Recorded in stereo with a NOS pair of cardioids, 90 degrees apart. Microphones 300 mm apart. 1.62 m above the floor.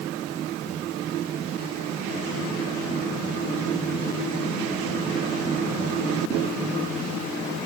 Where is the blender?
I don't hear a blender.